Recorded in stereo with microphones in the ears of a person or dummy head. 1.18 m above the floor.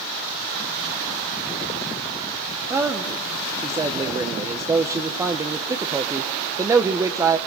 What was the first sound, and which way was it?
A man speaking, 10° right (ahead or behind).